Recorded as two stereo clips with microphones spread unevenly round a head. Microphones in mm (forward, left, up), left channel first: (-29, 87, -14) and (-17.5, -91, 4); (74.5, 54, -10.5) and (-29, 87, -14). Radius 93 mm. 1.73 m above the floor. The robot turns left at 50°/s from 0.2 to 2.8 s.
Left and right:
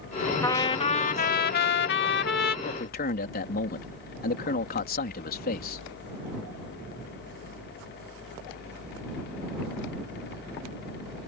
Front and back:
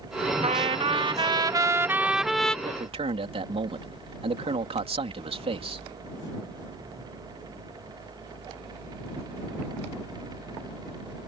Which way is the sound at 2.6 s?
140° left.